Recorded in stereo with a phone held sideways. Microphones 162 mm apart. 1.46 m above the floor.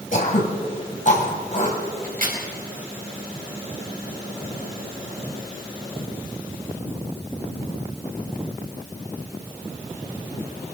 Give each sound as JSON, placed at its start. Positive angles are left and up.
{"t": 0.1, "sound": "throat clearing", "side_deg": 55, "distance_m": 2.5}
{"t": 2.0, "sound": "a crack", "side_deg": -65, "distance_m": 4.0}